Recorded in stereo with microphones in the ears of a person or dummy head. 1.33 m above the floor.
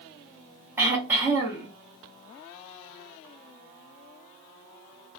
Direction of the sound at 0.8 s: 10° right (ahead or behind).